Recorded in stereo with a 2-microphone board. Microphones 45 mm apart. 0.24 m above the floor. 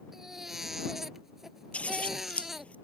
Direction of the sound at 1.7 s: 30° left (ahead or behind).